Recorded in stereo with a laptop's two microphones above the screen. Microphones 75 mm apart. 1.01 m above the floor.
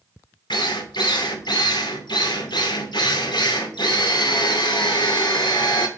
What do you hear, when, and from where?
0.5 s a drill: 85° left, 2 m